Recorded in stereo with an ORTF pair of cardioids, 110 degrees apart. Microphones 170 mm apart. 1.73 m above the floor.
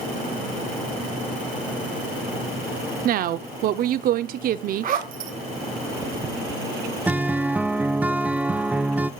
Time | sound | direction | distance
3.0 | a woman speaking | 60° right | 0.7 m
4.8 | a zipper | 55° right | 1.9 m
7.1 | a guitar | 10° right | 0.5 m